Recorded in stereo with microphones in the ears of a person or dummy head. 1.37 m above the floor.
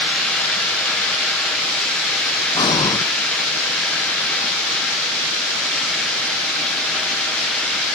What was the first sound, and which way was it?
Breathing, 25° left (ahead or behind).